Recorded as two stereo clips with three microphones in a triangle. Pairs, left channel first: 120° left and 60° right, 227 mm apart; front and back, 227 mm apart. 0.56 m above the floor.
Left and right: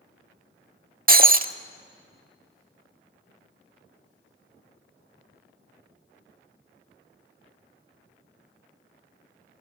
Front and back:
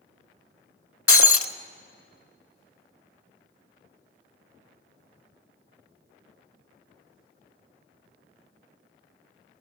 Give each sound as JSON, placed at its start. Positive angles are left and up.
{"t": 1.1, "sound": "breaking glass", "azimuth_deg": -10, "distance_m": 0.7}